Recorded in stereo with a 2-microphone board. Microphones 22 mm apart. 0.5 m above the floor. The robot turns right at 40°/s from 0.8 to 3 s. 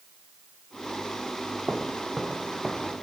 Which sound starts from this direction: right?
Footsteps, at 1.7 s.